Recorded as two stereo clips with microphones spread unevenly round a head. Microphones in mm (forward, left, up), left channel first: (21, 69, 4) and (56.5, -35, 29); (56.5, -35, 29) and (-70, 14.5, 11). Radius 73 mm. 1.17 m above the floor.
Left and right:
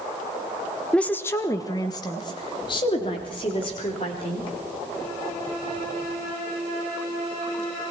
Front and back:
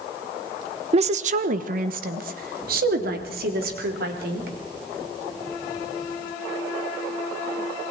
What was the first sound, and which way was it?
A woman speaking, straight behind.